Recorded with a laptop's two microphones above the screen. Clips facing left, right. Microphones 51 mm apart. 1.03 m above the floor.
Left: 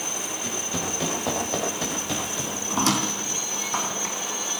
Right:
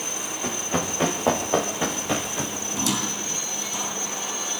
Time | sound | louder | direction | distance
0.4 | running footsteps | right 6 dB | 35° right (ahead or behind) | 7 m
2.7 | a squeak | left 5 dB | 55° left (ahead or behind) | 3.5 m